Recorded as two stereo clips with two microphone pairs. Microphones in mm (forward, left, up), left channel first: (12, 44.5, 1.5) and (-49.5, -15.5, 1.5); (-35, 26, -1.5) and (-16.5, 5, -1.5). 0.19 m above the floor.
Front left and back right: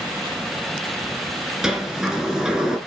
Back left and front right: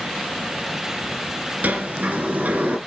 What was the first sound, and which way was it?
A sliding door, 55° right.